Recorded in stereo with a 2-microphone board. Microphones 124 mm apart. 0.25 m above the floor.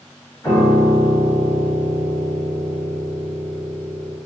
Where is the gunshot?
No gunshot in this recording.